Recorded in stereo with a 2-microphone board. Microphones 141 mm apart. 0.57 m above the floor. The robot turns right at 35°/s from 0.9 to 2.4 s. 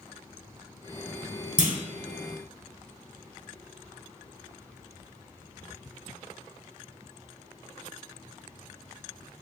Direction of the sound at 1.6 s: 10° right (ahead or behind).